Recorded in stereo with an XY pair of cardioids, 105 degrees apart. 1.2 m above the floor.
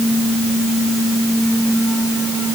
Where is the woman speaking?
I don't hear a woman speaking.